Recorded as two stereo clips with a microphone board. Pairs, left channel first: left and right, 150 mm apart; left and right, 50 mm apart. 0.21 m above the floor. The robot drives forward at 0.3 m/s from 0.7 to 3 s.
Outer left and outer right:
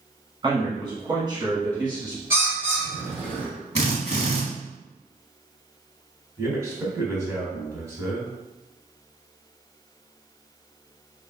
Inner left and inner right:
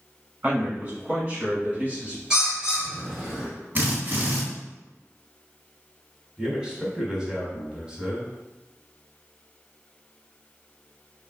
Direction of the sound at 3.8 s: 45° right (ahead or behind).